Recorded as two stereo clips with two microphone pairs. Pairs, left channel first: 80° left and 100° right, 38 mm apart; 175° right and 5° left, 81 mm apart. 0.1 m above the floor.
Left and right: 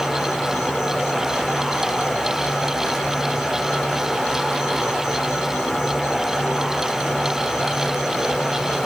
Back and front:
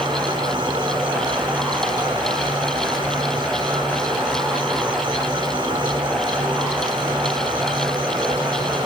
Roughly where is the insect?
Ahead.